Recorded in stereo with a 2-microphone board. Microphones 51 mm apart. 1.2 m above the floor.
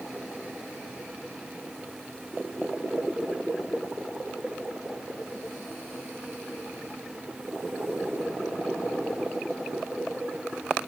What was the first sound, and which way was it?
Only background noise.